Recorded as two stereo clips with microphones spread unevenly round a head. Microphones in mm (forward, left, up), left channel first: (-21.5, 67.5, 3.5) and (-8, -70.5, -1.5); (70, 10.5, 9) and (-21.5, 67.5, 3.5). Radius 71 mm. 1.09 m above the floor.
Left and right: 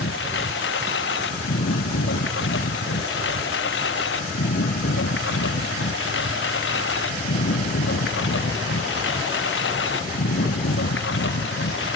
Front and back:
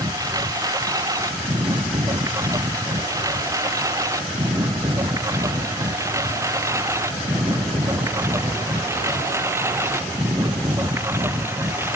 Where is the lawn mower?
90° left; by 12.0 s 80° left.